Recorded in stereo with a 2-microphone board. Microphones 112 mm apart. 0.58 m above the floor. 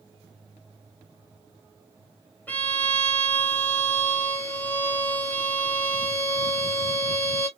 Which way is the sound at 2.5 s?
15° left (ahead or behind).